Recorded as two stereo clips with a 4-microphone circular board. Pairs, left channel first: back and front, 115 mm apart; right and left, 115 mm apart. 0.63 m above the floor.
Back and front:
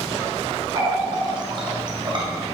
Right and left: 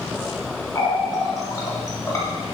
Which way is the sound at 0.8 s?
35° right.